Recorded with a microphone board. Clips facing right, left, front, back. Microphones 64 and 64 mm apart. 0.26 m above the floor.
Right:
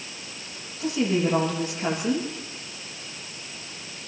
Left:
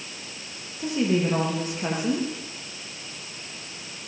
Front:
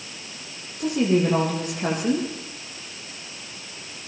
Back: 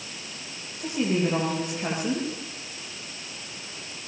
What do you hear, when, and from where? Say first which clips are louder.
0.8 s a woman speaking: even, front 5 dB; 20° left, 9.5 m